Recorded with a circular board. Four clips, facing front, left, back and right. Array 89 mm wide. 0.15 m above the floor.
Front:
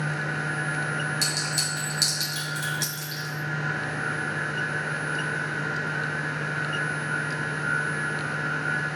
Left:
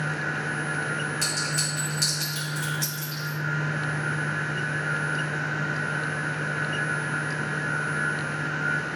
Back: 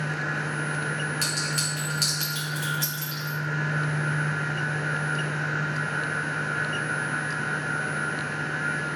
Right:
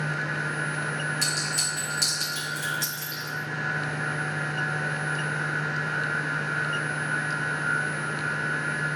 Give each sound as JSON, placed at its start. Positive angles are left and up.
{"t": 1.2, "sound": "a clink", "azimuth_deg": 180, "distance_m": 1.0}